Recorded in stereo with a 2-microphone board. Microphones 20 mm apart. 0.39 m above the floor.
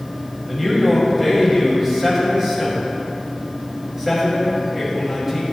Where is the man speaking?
20° right (ahead or behind), 2 m.